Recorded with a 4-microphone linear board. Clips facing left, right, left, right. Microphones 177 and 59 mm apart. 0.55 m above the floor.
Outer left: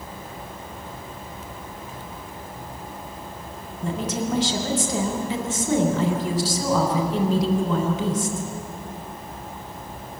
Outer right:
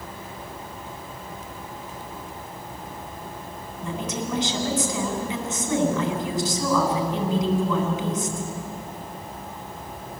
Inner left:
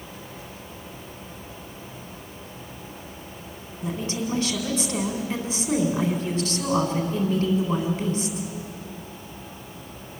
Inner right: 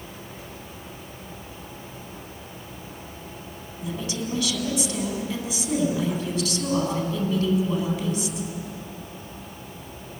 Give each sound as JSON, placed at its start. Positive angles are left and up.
{"t": 3.8, "sound": "a woman speaking", "side_deg": 30, "distance_m": 4.0}